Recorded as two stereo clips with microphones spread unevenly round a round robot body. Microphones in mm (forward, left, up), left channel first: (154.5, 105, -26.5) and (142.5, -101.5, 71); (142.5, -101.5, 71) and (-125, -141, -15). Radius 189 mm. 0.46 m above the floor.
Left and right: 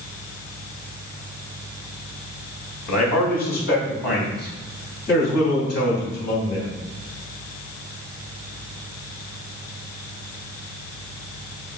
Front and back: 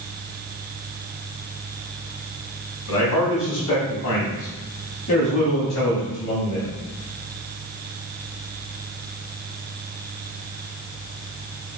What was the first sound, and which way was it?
A man speaking, 60° left.